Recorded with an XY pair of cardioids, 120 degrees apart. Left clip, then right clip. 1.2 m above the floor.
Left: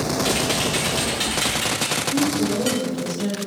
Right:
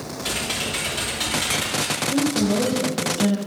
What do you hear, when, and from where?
0.2 s typing on a keyboard: 25° left, 2.0 m
2.1 s a woman speaking: 45° right, 0.7 m